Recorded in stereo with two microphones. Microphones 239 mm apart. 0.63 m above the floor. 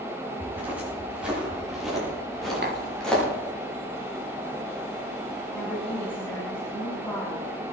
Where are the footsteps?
10° right (ahead or behind), 9 m; by 3.2 s 5° left (ahead or behind), 10 m.